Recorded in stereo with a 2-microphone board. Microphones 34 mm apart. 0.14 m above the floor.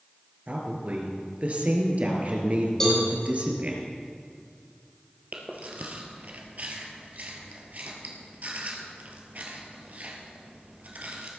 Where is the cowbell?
15° left (ahead or behind), 4 m.